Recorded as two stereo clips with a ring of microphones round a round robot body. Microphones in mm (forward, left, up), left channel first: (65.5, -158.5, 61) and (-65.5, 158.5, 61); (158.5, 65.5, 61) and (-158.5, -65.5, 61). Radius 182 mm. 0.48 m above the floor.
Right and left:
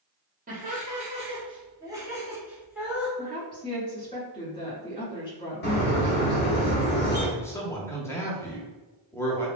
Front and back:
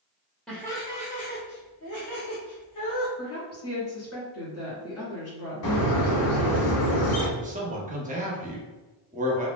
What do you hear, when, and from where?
0.5 s laughter: 110° left, 1.0 m; by 3.1 s 25° left, 1.6 m
3.2 s a woman speaking: straight ahead, 1.6 m
5.6 s a bird: 10° right, 1.1 m
7.4 s a man speaking: 140° right, 0.7 m